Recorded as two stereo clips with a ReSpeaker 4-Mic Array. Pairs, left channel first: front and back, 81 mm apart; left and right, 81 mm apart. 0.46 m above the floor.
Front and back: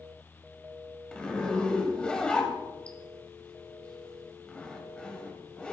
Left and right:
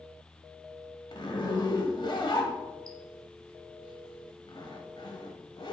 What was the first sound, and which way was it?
A zipper, 80° left.